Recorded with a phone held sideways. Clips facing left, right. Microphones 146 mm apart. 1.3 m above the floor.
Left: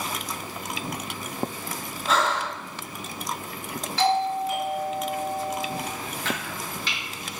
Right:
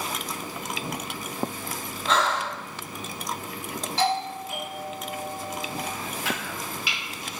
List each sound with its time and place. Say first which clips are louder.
2.1 s breathing: even; 5° left (ahead or behind), 0.9 m
4.0 s a doorbell: left 4 dB; 30° right (ahead or behind), 1.8 m
6.2 s chopping: left 1 dB; 10° right (ahead or behind), 0.9 m